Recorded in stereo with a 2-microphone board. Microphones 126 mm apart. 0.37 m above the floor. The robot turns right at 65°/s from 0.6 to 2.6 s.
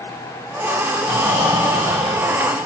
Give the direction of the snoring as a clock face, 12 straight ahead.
3 o'clock.